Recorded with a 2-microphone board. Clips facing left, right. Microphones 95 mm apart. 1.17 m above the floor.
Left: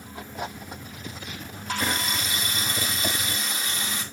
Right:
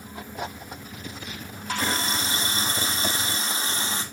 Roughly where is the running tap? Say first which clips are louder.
Right 1 dB; right.